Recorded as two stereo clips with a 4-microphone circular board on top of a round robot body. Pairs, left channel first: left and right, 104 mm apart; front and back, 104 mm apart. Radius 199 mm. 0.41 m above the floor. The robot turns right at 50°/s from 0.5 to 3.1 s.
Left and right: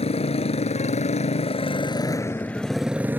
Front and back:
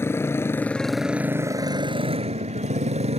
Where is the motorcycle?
65° left; by 3.2 s 165° right.